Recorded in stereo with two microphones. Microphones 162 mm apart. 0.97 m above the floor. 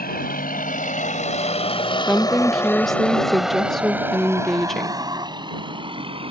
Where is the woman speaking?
Centre (ahead or behind).